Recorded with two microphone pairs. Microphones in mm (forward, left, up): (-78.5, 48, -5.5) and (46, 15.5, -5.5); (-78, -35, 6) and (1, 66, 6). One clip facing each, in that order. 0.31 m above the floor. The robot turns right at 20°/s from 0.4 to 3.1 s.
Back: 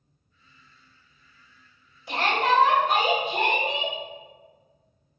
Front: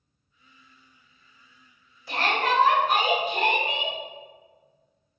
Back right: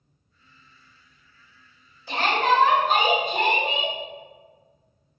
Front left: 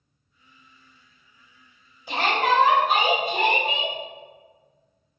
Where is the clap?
No clap in this recording.